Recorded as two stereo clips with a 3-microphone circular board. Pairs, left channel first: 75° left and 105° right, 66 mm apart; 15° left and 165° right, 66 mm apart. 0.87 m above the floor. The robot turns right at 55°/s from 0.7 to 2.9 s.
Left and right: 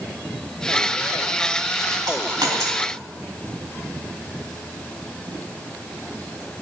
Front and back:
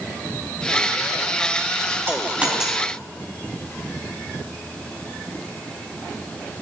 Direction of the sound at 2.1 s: 115° right.